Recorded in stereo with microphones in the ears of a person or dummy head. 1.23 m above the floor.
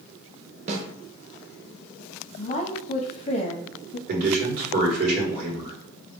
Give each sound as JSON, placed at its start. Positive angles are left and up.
{"t": 0.7, "sound": "a snare drum", "side_deg": -40, "distance_m": 0.6}
{"t": 2.4, "sound": "a woman speaking", "side_deg": 35, "distance_m": 0.8}
{"t": 4.1, "sound": "a man speaking", "side_deg": -50, "distance_m": 1.9}